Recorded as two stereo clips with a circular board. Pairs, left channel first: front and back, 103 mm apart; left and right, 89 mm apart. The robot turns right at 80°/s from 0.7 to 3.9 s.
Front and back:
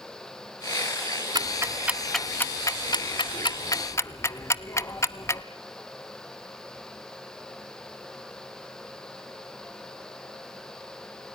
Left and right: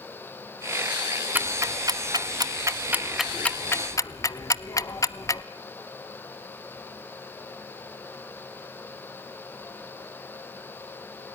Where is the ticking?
150° right, 0.9 m; by 5.4 s 55° left, 0.9 m.